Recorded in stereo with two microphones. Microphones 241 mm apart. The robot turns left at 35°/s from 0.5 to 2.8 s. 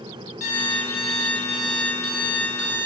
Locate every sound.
0.4 s an alarm clock: 85° right, 3.5 m; by 2.9 s 165° right, 3.5 m